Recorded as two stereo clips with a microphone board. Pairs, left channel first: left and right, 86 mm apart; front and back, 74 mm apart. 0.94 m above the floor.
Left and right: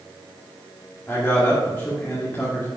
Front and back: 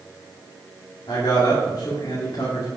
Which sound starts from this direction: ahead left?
A man speaking, at 1.1 s.